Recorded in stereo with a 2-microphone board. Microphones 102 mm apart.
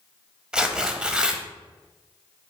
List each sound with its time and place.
0.5 s tearing paper: 10° right (ahead or behind), 0.5 m